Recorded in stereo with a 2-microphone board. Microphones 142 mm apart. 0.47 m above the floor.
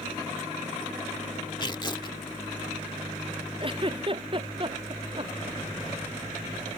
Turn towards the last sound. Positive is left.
turn(degrees=-35)  # may be behind; listen again after turning